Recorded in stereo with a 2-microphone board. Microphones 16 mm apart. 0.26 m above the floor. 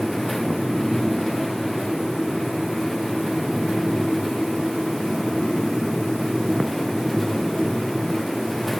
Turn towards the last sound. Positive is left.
No sound to turn to.